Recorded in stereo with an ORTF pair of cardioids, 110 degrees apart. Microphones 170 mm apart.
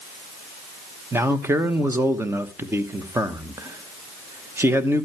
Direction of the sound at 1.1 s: 15° right.